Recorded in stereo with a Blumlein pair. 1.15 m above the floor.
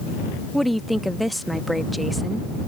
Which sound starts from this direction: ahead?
A woman speaking, at 0.5 s.